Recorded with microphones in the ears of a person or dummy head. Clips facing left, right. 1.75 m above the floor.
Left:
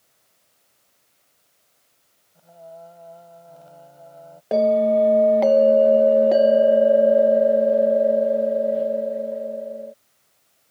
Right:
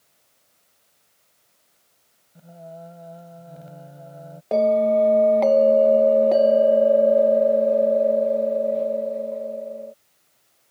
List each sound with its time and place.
2.4 s singing: 20° right (ahead or behind)
4.5 s a bell: 15° left (ahead or behind)